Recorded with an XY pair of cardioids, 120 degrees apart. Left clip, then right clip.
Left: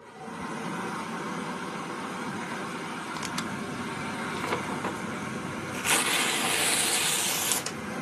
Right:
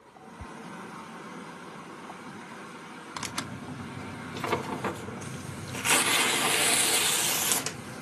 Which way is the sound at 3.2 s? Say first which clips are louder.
Right 1 dB; 5° right.